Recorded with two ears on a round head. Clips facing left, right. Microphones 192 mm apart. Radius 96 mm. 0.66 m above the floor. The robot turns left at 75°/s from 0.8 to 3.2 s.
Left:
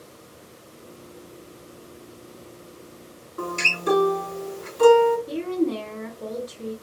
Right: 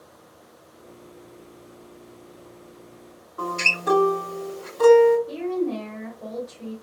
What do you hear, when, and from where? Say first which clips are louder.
3.4 s a guitar: left 1 dB; 40° left (ahead or behind), 3 m
5.3 s a woman speaking: left 1 dB; 45° left (ahead or behind), 1.1 m